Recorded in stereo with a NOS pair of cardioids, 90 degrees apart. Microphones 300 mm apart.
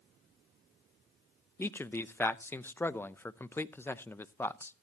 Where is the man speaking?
5° left, 0.6 m.